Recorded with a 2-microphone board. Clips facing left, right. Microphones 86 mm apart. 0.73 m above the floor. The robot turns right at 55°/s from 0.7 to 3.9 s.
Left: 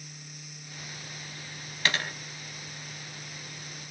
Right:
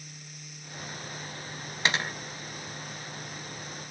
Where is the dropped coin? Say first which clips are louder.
Right 1 dB; 20° right (ahead or behind), 0.6 m.